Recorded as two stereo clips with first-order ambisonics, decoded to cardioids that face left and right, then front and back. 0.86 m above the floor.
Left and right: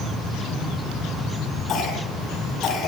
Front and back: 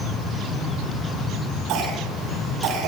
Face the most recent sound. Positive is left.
turn(degrees=145)